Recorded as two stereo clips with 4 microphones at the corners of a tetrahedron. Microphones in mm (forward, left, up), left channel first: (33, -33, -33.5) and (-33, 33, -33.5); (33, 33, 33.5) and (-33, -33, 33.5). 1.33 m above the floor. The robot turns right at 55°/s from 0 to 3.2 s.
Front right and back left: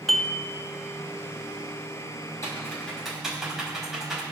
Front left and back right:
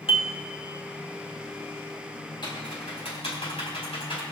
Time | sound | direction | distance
0.1 | dishes clattering | 45° left | 1.3 m
2.4 | typing on a keyboard | 10° left | 4 m